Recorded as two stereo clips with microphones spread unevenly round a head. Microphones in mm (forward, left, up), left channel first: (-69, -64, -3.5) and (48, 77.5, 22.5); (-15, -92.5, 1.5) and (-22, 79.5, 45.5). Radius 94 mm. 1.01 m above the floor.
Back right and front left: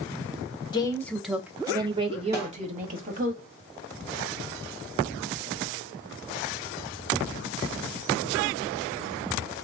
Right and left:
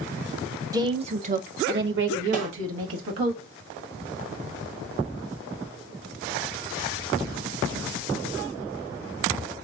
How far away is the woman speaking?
About 0.8 m.